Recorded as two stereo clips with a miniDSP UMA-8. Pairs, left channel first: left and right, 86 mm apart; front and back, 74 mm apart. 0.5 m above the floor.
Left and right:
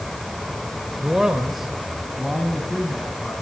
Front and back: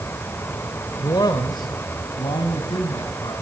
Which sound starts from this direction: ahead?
A man speaking, at 1.0 s.